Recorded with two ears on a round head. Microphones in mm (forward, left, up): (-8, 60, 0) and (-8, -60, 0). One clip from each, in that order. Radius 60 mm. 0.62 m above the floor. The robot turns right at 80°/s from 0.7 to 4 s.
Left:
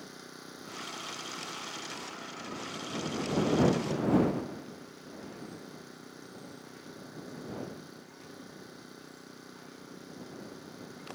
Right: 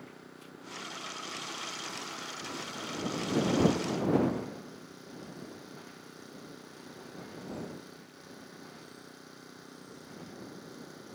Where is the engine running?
90° left; by 11.2 s 5° right.